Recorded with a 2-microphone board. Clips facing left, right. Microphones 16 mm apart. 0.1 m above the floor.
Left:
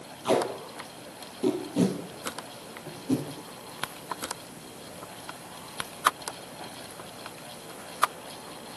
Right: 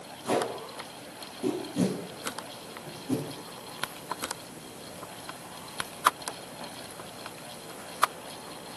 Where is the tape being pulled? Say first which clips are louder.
Left 3 dB; 60° left (ahead or behind), 2.5 m.